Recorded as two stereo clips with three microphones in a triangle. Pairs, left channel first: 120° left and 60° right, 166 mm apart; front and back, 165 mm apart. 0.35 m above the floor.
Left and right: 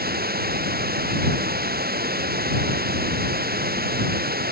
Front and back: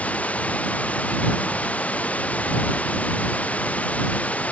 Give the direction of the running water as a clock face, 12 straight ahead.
3 o'clock.